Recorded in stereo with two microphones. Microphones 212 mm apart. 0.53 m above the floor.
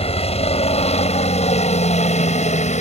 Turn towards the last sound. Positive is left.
turn(degrees=35)  # may be behind; listen again after turning